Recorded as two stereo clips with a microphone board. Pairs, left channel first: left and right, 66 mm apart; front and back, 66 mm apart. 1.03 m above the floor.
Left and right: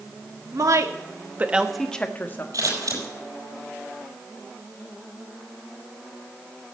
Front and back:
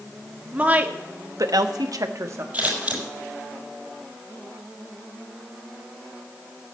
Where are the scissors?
110° right, 6 m.